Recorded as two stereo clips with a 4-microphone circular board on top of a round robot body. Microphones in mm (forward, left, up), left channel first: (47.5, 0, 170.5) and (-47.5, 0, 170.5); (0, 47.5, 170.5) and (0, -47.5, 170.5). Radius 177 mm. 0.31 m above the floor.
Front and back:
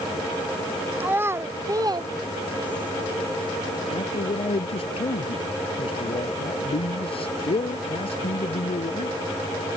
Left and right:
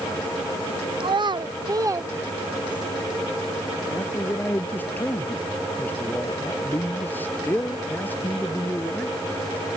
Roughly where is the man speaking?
Ahead.